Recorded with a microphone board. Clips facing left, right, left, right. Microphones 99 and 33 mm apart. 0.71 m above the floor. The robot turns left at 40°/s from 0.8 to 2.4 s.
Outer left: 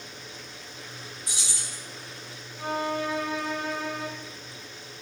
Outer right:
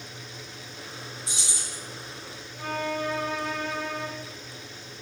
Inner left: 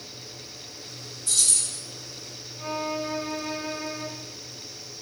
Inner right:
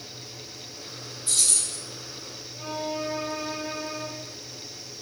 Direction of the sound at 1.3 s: 25° right (ahead or behind).